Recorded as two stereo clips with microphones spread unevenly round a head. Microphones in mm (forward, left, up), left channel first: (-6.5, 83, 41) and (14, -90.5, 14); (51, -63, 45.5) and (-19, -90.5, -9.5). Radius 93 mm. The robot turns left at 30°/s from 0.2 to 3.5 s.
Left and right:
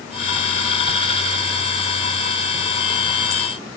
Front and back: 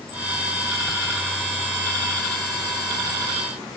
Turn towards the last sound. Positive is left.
No sound to turn to.